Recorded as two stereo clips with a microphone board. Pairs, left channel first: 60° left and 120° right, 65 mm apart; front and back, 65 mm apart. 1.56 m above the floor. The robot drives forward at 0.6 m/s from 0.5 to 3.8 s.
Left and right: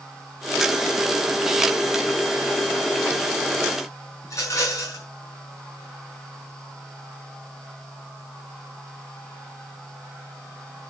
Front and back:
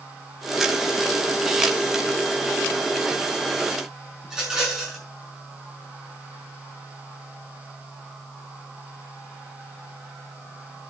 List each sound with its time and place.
4.2 s a rattle: 100° left, 6.5 m